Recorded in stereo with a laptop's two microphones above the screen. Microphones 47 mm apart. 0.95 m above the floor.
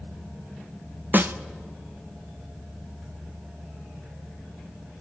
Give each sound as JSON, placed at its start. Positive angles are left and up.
{"t": 1.1, "sound": "a snare drum", "side_deg": -45, "distance_m": 0.5}